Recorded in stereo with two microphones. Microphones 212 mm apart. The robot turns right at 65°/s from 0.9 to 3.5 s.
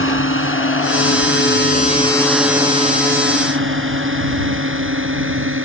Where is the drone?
75° left (ahead or behind); by 5.7 s 75° right (ahead or behind).